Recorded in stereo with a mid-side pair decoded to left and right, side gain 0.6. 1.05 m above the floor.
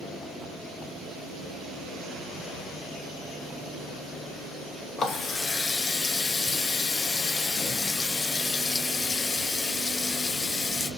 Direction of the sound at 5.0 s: 30° left.